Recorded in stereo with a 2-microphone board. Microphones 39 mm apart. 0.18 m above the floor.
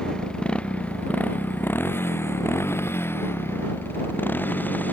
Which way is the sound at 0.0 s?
20° left (ahead or behind).